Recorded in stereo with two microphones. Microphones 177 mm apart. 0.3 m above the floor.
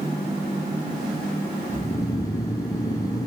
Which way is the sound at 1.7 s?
20° left (ahead or behind).